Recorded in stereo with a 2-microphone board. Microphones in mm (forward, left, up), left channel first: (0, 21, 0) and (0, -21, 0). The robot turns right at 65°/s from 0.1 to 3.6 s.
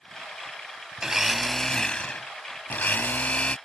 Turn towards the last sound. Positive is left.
turn(degrees=145)